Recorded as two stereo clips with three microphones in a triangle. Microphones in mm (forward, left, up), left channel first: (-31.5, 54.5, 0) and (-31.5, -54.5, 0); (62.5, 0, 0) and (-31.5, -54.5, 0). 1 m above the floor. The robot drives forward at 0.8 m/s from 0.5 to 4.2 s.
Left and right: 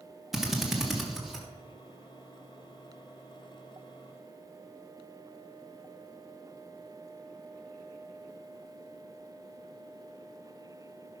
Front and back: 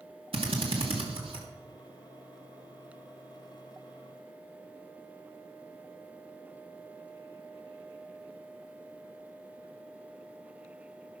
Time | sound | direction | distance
0.3 | a drill | straight behind | 1.9 m